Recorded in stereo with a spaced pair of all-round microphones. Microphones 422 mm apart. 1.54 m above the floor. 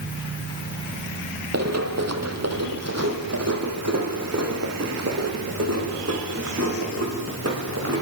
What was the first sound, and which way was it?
Running footsteps, 35° right (ahead or behind).